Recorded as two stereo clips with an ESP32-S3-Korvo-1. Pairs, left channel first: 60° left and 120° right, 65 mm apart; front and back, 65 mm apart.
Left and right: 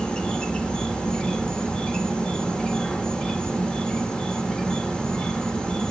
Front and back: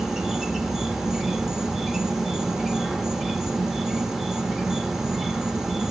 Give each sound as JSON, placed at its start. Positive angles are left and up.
{"t": 0.0, "sound": "an insect", "azimuth_deg": 110, "distance_m": 1.0}